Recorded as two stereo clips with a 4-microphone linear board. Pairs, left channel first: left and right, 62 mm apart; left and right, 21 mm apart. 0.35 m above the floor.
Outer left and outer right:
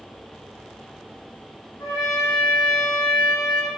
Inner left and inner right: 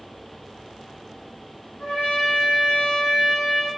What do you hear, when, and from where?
1.8 s a trumpet: 60° left (ahead or behind), 0.8 m